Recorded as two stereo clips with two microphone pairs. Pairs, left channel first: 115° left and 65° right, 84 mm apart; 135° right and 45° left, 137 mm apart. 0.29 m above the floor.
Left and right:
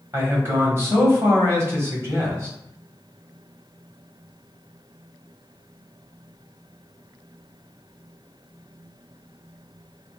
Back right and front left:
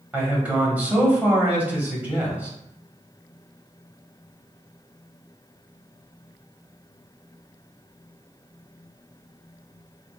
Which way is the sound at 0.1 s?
25° right.